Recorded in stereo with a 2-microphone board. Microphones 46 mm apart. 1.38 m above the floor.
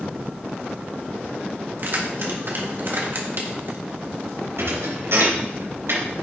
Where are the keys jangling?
50° right (ahead or behind), 1.8 m.